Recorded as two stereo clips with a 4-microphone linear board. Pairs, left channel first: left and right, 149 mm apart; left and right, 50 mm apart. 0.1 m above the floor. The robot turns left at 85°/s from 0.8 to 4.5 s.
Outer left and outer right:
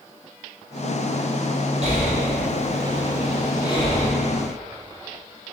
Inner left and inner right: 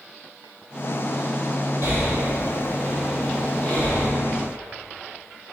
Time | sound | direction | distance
1.8 | breathing | 45° right (ahead or behind) | 1.8 m